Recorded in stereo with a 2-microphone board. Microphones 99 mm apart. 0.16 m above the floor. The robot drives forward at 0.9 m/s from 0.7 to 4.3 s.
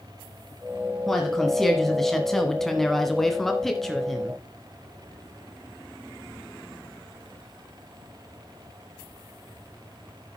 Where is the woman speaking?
5° left (ahead or behind), 1.8 m; by 4.4 s centre (ahead or behind), 2.5 m.